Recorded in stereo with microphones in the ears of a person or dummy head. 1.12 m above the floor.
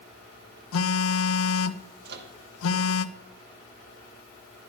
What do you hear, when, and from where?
0.7 s a phone buzzing: 90° left, 1.0 m
2.0 s a microwave: 60° right (ahead or behind), 2 m